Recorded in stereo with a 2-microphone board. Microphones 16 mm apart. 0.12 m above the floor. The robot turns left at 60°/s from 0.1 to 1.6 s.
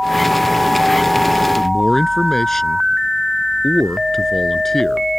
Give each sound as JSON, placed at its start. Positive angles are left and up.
{"t": 1.6, "sound": "a man speaking", "side_deg": 20}